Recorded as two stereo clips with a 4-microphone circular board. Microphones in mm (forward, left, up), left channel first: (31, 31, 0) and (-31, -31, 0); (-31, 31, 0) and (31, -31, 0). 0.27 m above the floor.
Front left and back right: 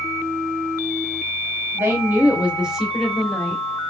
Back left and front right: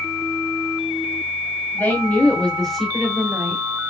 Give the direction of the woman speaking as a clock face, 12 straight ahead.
6 o'clock.